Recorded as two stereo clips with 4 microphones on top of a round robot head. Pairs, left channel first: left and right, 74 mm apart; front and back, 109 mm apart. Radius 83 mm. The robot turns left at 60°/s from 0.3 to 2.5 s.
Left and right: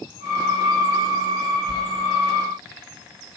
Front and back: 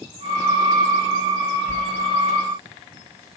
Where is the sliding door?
75° left, 2.5 m; by 1.8 s 70° left, 2.5 m.